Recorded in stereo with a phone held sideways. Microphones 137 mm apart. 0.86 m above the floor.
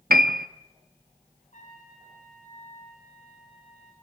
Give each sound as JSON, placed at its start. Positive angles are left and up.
{"t": 0.1, "sound": "a piano", "side_deg": -85, "distance_m": 0.7}
{"t": 1.5, "sound": "a trumpet", "side_deg": 55, "distance_m": 8.0}